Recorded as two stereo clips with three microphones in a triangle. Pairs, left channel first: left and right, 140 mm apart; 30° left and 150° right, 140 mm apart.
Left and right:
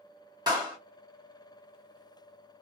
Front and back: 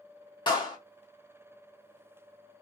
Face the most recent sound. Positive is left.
turn(degrees=-25)